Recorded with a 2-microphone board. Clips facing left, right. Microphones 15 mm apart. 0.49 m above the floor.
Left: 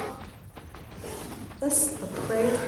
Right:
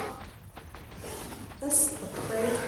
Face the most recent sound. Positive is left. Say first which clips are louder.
# left 4 dB
turn(degrees=35)  # may be behind; listen again after turning